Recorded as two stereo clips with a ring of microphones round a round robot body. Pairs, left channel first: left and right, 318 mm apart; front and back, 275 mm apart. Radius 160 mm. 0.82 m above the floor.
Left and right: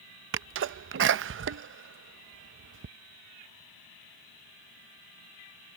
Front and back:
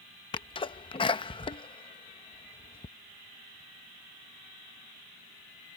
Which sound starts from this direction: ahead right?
A sneeze, at 0.3 s.